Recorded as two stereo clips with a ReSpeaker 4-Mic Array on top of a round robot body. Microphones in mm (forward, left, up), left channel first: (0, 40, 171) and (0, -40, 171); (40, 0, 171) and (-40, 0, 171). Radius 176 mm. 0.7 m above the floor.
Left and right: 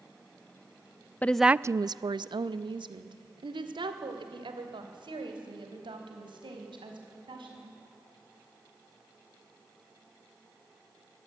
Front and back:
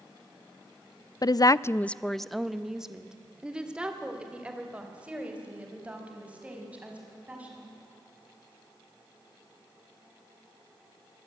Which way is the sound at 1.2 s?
25° left.